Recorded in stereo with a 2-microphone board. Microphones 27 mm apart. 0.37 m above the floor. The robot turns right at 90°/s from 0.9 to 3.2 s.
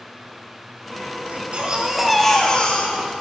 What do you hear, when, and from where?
1.3 s a baby crying: 75° right, 1.0 m; by 3.2 s 95° left, 1.0 m